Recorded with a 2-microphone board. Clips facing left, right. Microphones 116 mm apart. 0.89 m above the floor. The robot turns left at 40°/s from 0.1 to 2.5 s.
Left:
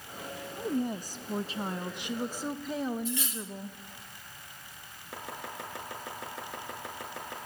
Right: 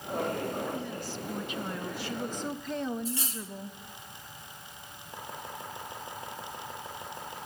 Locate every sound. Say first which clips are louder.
0.6 s a woman speaking: left 3 dB; 85° left, 0.8 m; by 3.8 s 5° left, 0.8 m
3.0 s cutlery clinking: left 1 dB; 35° right (ahead or behind), 1.0 m
5.1 s chopping: left 1 dB; 85° left, 5 m